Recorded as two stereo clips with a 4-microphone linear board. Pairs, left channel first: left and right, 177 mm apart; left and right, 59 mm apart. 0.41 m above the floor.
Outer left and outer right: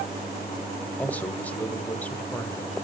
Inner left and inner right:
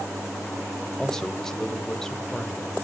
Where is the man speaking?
10° left (ahead or behind), 1.5 m.